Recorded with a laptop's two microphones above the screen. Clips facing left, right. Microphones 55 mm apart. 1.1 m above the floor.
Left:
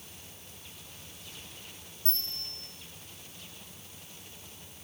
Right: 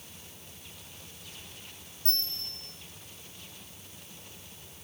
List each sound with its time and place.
2.0 s a bell: 55° right (ahead or behind), 8.5 m